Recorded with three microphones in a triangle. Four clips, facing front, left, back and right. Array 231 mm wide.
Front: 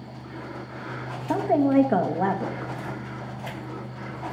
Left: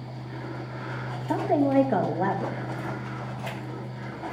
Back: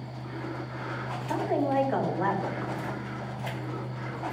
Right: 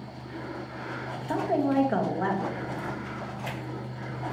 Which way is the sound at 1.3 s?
10° left.